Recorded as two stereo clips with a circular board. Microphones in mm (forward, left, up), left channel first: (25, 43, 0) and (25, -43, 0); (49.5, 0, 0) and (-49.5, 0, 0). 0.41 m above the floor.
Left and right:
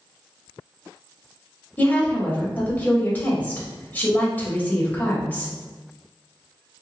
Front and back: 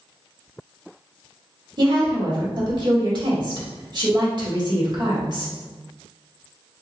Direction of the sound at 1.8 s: 155° left.